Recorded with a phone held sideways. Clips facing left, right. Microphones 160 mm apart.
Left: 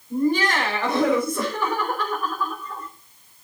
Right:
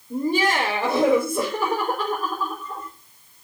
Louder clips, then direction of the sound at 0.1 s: Left 1 dB; 25° right (ahead or behind).